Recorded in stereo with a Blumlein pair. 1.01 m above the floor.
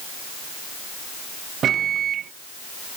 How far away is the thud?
No thud in this recording.